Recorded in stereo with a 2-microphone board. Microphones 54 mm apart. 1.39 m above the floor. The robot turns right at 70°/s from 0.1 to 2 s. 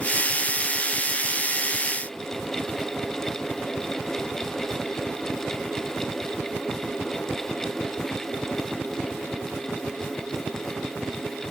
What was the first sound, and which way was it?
Only background noise.